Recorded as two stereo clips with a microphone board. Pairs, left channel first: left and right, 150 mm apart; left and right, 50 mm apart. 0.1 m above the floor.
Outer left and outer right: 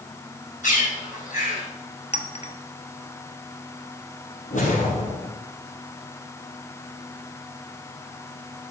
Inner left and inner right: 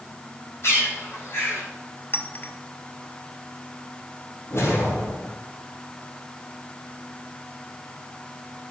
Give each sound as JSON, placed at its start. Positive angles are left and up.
{"t": 0.6, "sound": "a bird", "side_deg": 60, "distance_m": 5.5}
{"t": 2.1, "sound": "a clink", "side_deg": 45, "distance_m": 1.1}
{"t": 4.5, "sound": "a whoosh", "side_deg": 55, "distance_m": 3.5}